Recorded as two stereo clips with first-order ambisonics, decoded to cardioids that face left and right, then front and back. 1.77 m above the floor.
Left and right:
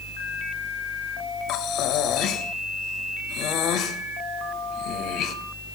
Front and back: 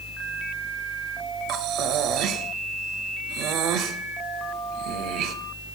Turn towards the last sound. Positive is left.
turn(degrees=140)